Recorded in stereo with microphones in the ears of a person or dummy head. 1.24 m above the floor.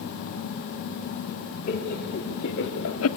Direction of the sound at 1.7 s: 55° left (ahead or behind).